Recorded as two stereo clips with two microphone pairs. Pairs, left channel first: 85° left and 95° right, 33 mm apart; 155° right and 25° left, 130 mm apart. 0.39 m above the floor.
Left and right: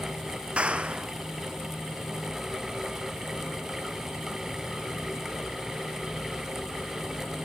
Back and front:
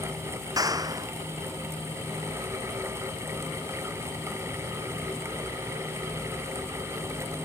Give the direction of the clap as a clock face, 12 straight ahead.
1 o'clock.